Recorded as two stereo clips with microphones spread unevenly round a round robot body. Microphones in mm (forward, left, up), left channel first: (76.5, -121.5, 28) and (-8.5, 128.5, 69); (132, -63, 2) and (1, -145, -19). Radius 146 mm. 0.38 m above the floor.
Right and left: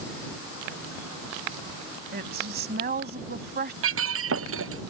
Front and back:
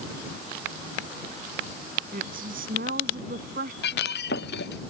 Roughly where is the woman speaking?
Behind.